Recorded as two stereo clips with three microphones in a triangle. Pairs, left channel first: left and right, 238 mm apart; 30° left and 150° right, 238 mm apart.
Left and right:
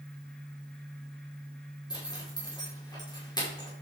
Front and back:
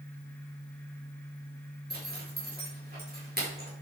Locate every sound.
1.9 s a zipper: 165° left, 4.5 m